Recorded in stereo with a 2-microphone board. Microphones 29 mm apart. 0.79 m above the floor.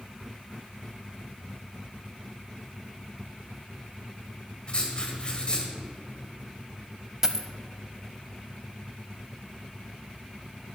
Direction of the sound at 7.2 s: 20° right (ahead or behind).